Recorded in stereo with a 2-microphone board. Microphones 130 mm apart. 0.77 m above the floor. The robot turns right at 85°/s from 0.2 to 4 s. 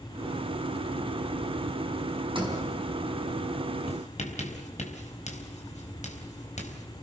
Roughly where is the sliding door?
Right.